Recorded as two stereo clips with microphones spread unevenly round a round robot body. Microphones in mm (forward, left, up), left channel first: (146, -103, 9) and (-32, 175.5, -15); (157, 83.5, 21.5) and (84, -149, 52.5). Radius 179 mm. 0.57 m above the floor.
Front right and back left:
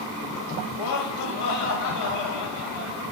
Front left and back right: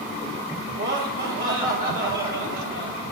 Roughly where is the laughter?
Right.